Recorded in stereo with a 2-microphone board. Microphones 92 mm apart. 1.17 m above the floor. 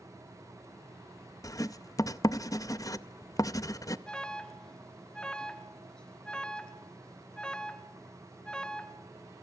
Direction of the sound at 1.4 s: 40° left (ahead or behind).